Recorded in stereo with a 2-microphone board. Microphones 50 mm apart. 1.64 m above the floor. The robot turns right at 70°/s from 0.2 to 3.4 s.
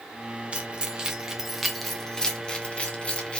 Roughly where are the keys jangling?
Right.